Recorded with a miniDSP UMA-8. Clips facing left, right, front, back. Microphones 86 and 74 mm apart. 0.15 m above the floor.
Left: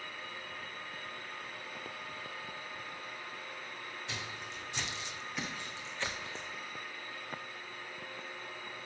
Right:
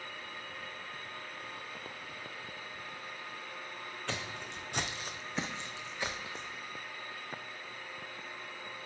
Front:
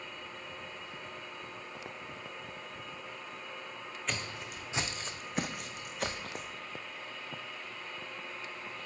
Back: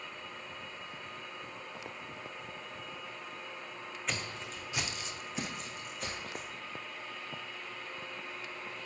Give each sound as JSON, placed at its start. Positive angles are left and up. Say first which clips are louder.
{"t": 4.1, "sound": "footsteps", "louder": "right 5 dB, even", "azimuth_deg": -90, "distance_m": 0.9}